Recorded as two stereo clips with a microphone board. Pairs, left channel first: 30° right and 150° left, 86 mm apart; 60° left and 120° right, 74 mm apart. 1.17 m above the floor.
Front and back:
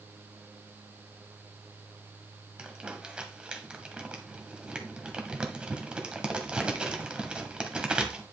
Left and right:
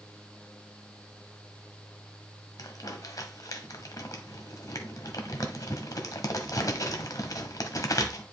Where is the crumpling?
75° left, 1.4 m.